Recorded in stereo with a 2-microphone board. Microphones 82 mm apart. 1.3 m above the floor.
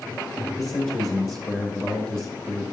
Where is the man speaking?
30° left (ahead or behind), 1.8 m.